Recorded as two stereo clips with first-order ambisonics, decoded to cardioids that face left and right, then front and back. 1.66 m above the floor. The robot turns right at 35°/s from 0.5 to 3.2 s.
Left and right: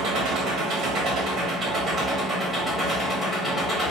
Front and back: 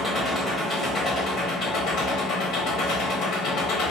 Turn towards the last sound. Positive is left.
turn(degrees=25)